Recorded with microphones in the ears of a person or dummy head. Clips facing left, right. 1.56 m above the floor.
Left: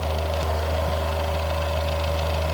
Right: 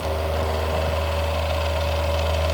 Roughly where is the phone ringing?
No phone ringing in this recording.